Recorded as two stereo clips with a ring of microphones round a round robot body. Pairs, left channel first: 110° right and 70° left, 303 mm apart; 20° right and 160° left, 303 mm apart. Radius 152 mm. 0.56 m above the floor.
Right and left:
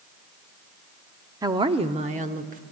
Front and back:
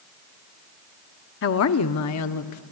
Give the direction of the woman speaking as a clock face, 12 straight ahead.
12 o'clock.